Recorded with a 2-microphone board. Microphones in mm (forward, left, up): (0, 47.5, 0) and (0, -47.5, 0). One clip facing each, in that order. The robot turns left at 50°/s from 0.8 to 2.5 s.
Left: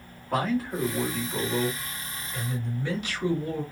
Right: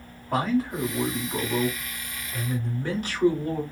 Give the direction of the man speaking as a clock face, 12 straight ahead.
12 o'clock.